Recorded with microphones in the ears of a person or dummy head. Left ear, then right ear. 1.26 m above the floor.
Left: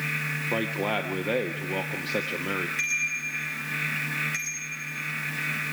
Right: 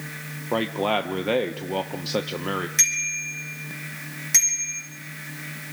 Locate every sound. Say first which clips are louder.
0.5 s a man speaking: right 6 dB; 15° right (ahead or behind), 0.6 m
2.8 s a bicycle bell: right 6 dB; 50° right (ahead or behind), 6.5 m